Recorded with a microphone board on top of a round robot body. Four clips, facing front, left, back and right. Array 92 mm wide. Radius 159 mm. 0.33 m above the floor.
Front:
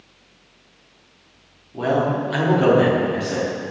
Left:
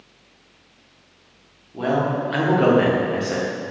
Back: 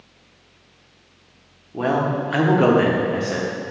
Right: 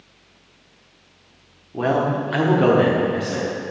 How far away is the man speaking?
About 1.6 m.